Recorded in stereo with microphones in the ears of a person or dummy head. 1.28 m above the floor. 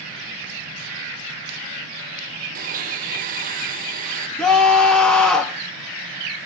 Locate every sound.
2.5 s a blender: 40° right (ahead or behind), 0.6 m
4.4 s a scream: centre (ahead or behind), 2.5 m